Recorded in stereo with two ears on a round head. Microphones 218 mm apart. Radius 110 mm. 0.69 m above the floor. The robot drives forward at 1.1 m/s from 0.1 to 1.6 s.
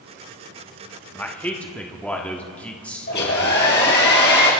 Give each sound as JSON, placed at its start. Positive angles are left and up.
{"t": 1.1, "sound": "a man speaking", "side_deg": 10, "distance_m": 1.0}
{"t": 3.1, "sound": "a hair dryer", "side_deg": 45, "distance_m": 4.0}